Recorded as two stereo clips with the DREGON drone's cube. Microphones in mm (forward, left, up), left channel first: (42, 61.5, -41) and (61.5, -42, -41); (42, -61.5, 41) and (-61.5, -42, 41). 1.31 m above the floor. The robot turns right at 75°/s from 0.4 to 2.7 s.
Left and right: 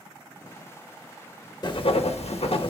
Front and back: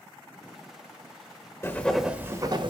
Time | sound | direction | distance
1.6 | writing | 50° left | 1.2 m